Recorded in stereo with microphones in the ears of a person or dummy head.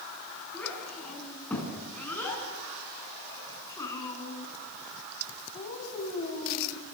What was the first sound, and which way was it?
A child speaking, 5° left (ahead or behind).